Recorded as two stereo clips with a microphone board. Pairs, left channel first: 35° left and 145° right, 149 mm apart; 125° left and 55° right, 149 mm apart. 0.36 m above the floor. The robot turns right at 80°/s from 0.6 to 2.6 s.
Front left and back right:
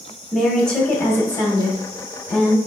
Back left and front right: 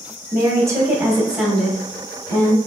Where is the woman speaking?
40° right, 0.9 m; by 2.6 s 115° left, 0.9 m.